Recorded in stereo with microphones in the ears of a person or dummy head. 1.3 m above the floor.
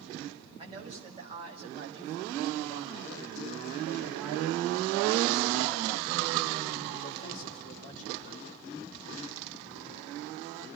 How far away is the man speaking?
About 7 m.